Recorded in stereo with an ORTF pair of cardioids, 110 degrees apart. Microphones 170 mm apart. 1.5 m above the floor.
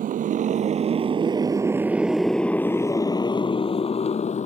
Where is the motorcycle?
55° right; by 4.5 s 45° left.